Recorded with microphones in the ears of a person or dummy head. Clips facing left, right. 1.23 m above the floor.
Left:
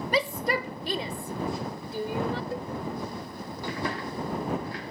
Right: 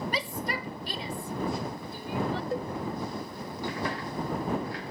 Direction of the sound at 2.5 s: 50° right (ahead or behind).